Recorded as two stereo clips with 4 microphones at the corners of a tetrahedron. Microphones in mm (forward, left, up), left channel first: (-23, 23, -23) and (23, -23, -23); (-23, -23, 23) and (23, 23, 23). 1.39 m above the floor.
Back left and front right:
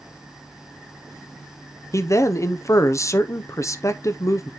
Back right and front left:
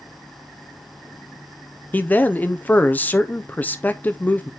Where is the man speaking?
165° left, 0.7 m.